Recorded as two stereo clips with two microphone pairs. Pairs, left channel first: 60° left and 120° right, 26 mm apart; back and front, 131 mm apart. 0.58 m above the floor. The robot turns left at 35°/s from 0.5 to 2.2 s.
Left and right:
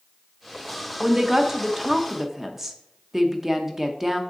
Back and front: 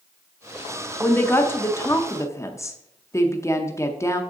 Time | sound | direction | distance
1.0 | a woman speaking | 130° right | 0.7 m